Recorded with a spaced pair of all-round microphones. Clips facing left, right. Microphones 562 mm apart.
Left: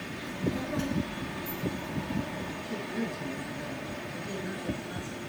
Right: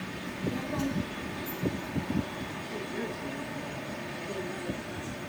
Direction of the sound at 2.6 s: 85° left.